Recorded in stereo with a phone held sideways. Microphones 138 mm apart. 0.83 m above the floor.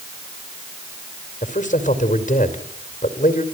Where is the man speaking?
60° left (ahead or behind), 2.5 m.